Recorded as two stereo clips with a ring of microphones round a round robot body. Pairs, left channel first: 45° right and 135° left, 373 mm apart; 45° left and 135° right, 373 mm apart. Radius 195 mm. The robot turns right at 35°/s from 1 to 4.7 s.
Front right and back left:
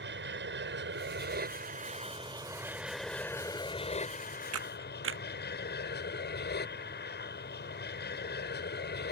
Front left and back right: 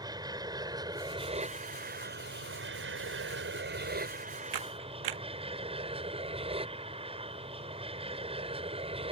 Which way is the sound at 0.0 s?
155° left.